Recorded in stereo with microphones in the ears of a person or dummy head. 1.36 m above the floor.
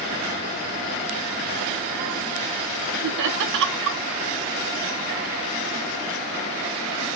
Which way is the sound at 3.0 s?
65° right (ahead or behind).